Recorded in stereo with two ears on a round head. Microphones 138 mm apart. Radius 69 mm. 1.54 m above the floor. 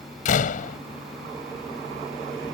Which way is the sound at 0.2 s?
55° left (ahead or behind).